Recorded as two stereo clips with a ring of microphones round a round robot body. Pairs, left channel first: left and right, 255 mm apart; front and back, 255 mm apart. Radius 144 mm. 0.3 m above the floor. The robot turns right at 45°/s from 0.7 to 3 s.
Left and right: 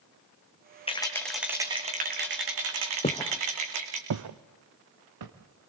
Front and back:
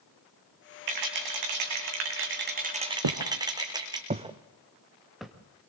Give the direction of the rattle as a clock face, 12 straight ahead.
7 o'clock.